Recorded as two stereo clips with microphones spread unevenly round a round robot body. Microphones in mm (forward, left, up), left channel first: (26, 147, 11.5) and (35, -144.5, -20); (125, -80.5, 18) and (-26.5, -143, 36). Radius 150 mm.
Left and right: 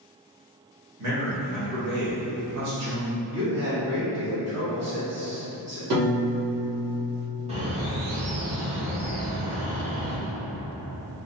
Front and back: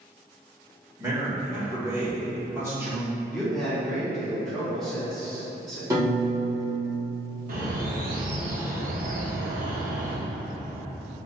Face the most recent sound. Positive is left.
turn(degrees=-145)